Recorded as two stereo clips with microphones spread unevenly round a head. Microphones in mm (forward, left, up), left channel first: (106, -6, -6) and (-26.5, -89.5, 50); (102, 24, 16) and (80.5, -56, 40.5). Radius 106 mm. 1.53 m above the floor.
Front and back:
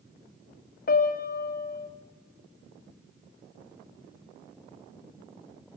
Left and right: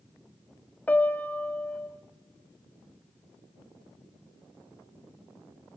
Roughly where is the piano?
Ahead.